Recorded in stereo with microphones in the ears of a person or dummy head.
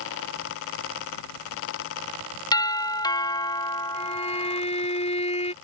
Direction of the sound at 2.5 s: 20° left (ahead or behind).